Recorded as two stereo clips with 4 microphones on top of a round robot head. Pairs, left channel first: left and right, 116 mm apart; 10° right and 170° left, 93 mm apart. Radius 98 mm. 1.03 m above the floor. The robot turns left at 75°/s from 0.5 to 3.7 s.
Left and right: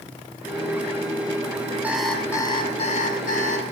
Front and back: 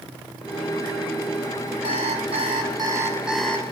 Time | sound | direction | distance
1.8 | an alarm clock | 165° right | 6.5 m